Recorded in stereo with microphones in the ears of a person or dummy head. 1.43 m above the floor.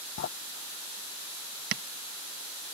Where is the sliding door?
50° left (ahead or behind).